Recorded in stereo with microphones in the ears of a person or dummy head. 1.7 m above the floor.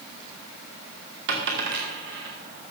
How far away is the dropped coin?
About 2.5 m.